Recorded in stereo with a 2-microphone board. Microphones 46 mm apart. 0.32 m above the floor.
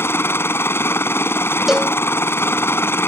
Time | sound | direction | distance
0.0 | a helicopter | 60° left (ahead or behind) | ?
1.7 | a cowbell | 10° right (ahead or behind) | ?